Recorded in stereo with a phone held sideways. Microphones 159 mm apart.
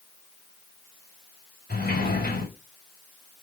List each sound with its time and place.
1.7 s a sliding door: 85° left, 4 m